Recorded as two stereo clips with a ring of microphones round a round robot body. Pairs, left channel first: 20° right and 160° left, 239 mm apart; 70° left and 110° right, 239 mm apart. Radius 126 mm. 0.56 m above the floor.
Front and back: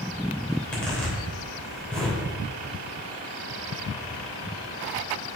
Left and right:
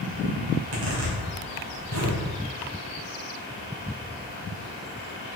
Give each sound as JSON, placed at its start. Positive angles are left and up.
{"t": 0.5, "sound": "a zipper", "azimuth_deg": -110, "distance_m": 3.0}